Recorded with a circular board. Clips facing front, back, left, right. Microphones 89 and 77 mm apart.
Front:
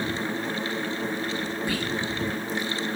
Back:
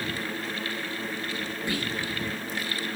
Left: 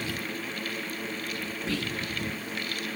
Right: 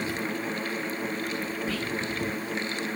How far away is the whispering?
About 9.5 m.